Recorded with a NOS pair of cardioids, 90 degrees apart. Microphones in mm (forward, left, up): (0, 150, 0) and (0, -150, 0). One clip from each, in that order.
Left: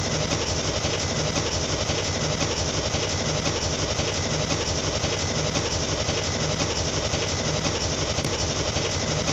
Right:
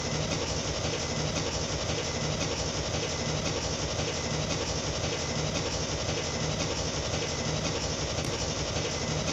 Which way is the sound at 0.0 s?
35° left.